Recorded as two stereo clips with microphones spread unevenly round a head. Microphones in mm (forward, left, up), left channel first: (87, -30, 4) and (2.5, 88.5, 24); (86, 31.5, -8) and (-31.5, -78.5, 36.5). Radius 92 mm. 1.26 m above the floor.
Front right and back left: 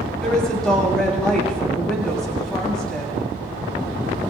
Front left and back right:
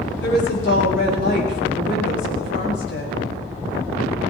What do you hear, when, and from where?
0.2 s a woman speaking: 30° left, 8 m